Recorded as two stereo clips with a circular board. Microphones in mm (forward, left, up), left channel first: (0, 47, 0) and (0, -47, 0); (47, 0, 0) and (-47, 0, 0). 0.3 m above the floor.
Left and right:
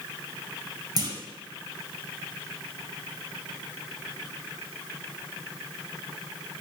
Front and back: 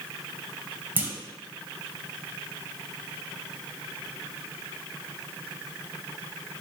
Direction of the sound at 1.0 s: 115° right.